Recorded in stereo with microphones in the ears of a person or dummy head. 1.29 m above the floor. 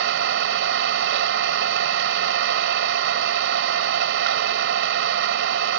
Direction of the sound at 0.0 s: 65° right (ahead or behind).